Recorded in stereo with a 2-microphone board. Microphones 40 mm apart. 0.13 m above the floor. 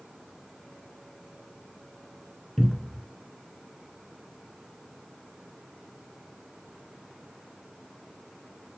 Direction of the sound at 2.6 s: 10° left (ahead or behind).